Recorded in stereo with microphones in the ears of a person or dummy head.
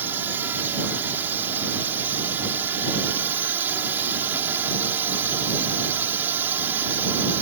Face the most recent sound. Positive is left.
turn(degrees=-10)  # may be behind; listen again after turning